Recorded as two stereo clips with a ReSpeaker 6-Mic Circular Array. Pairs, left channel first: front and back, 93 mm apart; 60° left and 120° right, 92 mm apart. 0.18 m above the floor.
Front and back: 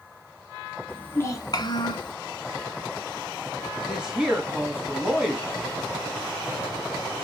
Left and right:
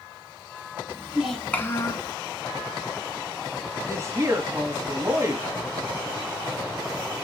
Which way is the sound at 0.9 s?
80° right.